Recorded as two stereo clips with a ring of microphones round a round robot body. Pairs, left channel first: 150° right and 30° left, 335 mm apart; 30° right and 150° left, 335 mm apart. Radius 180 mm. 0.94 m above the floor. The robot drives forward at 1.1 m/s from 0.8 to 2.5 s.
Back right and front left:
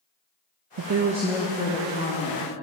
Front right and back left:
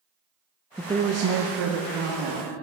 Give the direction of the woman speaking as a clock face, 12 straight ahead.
10 o'clock.